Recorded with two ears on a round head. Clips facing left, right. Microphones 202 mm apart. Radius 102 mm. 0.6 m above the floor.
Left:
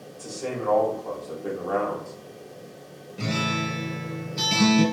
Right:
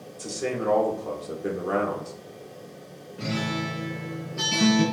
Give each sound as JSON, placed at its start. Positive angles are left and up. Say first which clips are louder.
{"t": 0.2, "sound": "a man speaking", "louder": "right 2 dB", "side_deg": -25, "distance_m": 1.0}
{"t": 3.2, "sound": "a guitar", "louder": "left 1 dB", "side_deg": 55, "distance_m": 1.8}